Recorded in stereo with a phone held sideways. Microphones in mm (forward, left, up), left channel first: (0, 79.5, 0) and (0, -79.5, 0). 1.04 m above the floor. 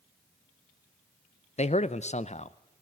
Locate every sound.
1.6 s a man speaking: 45° left (ahead or behind), 0.6 m